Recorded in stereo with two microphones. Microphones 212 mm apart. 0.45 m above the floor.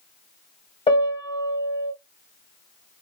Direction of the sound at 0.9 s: 25° left (ahead or behind).